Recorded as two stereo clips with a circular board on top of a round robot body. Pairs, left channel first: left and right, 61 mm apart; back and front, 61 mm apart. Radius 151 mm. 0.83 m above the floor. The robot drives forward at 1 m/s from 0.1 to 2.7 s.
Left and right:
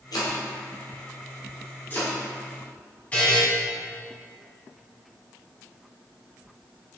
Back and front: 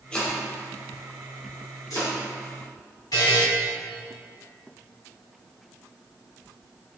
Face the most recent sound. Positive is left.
turn(degrees=160)